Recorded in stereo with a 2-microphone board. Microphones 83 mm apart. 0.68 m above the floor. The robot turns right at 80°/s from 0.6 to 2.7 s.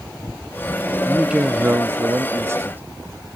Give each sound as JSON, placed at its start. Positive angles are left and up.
{"t": 1.1, "sound": "a man speaking", "azimuth_deg": -175}